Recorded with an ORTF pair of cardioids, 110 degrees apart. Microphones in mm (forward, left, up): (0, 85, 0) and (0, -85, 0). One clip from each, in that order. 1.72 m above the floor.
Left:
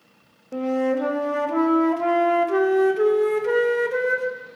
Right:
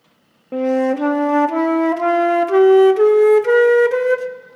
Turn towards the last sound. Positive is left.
turn(degrees=-30)